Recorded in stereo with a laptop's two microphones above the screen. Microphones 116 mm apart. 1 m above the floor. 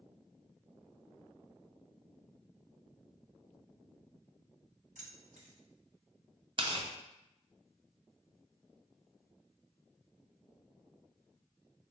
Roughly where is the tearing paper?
Right.